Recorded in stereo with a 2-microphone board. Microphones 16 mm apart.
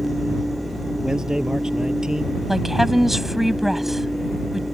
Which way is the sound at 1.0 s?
50° right (ahead or behind).